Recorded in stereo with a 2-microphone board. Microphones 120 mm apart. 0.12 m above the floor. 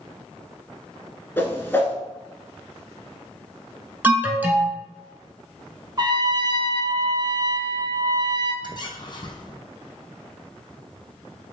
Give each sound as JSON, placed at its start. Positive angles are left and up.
{"t": 1.4, "sound": "a whoosh", "side_deg": 20, "distance_m": 0.8}
{"t": 4.0, "sound": "an alarm", "side_deg": -15, "distance_m": 0.9}
{"t": 6.0, "sound": "a trumpet", "side_deg": -40, "distance_m": 0.6}
{"t": 8.6, "sound": "a squeak", "side_deg": 40, "distance_m": 0.7}